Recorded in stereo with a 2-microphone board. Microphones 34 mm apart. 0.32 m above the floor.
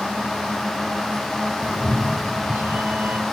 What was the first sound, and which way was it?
A cat meowing, 50° right (ahead or behind).